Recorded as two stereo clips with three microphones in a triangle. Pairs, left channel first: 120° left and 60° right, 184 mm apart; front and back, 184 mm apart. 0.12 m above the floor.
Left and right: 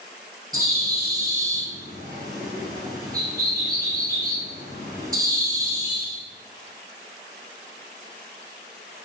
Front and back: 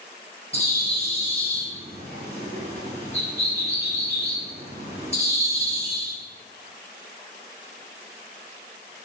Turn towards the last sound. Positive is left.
turn(degrees=-45)